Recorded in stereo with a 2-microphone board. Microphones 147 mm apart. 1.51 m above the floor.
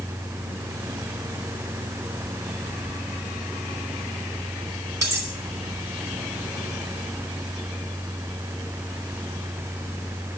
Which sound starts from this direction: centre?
Cutlery clinking, at 5.0 s.